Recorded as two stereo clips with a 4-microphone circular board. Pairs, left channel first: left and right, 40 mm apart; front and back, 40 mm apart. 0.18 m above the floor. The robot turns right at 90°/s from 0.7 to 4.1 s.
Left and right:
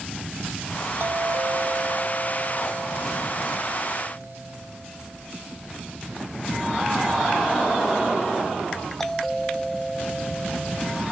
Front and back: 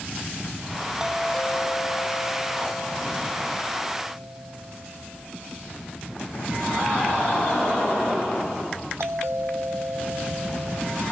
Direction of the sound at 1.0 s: 105° right.